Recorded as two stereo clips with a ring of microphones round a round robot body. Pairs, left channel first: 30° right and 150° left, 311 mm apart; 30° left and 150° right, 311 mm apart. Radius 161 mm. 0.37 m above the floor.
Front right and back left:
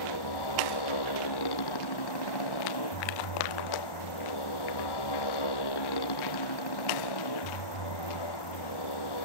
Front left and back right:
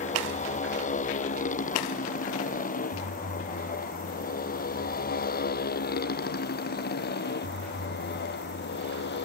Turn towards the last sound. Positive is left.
turn(degrees=-30)